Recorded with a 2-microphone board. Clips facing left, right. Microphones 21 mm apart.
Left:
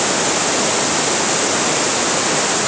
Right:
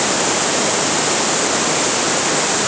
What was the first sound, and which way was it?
Only background noise.